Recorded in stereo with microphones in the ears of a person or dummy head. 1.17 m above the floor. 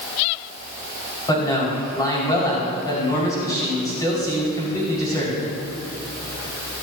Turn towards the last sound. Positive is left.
turn(degrees=20)  # may be behind; listen again after turning